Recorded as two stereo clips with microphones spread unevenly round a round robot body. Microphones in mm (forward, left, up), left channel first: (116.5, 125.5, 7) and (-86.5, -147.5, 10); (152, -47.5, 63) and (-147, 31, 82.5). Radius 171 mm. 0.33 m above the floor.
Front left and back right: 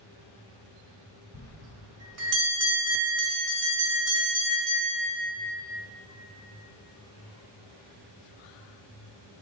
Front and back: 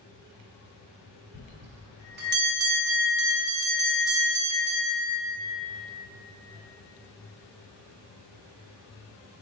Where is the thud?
No thud in this recording.